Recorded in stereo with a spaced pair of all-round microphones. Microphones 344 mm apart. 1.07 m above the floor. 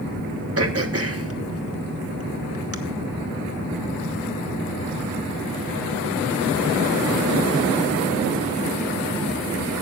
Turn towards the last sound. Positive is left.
turn(degrees=-40)  # may be behind; listen again after turning